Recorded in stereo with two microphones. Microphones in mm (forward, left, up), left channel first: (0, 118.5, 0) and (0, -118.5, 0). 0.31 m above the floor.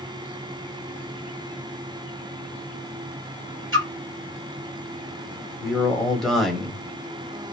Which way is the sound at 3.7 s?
60° right (ahead or behind).